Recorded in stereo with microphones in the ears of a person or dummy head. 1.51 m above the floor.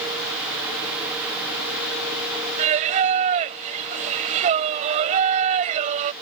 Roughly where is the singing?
Right.